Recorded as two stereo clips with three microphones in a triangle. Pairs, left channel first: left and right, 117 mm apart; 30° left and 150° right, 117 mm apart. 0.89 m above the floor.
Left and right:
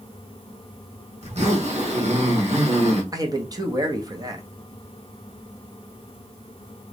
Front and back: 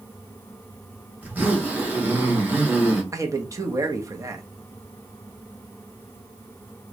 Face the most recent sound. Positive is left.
turn(degrees=-115)